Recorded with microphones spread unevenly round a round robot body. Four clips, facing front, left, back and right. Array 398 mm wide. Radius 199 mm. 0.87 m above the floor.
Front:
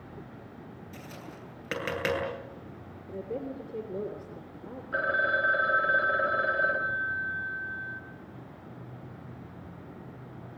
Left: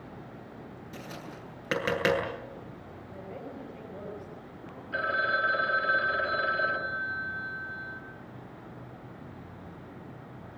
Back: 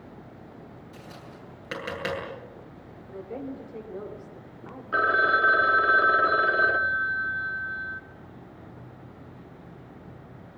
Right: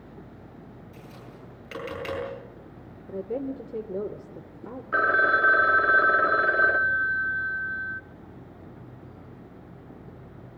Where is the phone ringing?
145° right, 1.7 m.